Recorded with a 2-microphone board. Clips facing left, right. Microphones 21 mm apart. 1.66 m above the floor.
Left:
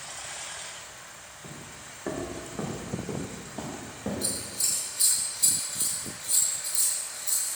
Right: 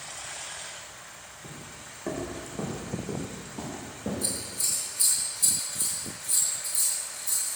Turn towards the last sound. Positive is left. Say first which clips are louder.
# even
turn(degrees=40)  # may be behind; listen again after turning